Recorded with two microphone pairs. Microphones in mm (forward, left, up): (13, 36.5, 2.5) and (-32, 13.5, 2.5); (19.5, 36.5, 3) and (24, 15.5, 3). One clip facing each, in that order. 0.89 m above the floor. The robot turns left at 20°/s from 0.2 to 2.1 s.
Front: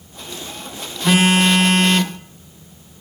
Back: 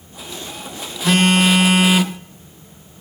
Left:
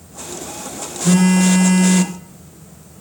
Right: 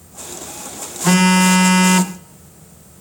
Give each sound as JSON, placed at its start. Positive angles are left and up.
{"t": 1.0, "sound": "a phone buzzing", "azimuth_deg": -55, "distance_m": 0.7}